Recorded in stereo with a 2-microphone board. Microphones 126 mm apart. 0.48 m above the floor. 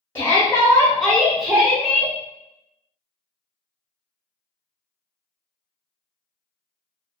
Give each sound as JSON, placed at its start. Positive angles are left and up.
{"t": 0.1, "sound": "a shout", "side_deg": 15, "distance_m": 0.9}